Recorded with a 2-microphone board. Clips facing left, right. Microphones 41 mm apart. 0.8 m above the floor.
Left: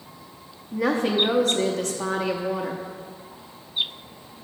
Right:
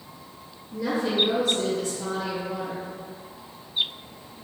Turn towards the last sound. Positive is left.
turn(degrees=60)  # may be behind; listen again after turning